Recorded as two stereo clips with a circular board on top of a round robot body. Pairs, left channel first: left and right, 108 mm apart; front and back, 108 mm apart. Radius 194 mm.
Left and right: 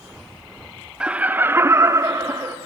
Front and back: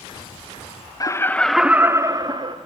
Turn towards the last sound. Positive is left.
turn(degrees=-150)